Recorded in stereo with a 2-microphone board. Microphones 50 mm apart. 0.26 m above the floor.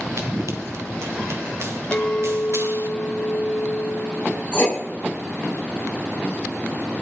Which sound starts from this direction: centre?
A clink, at 1.9 s.